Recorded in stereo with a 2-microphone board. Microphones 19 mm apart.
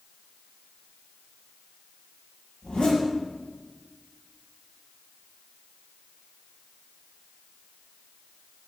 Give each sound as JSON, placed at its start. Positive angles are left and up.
{"t": 2.6, "sound": "a zipper", "side_deg": 70, "distance_m": 5.5}